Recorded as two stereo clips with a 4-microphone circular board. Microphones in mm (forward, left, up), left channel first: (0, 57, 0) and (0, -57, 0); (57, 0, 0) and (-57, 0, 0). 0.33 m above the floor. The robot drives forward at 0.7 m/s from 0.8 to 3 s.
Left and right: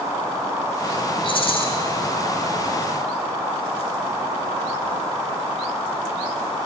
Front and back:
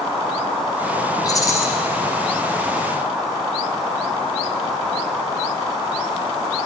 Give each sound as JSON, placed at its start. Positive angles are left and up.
{"t": 1.2, "sound": "a rattle", "azimuth_deg": 55, "distance_m": 2.0}